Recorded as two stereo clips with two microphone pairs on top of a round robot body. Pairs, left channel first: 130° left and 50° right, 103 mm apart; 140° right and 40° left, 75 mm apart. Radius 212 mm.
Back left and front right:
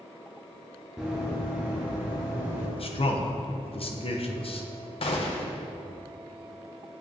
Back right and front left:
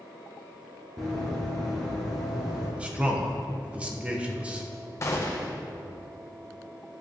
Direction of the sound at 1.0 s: 30° left.